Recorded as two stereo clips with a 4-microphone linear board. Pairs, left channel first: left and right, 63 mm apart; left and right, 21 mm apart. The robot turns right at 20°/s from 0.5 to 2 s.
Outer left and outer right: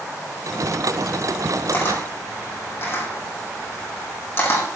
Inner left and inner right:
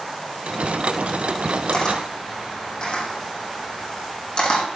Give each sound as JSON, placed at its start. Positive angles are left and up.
{"t": 1.7, "sound": "a camera shutter", "side_deg": 30, "distance_m": 3.5}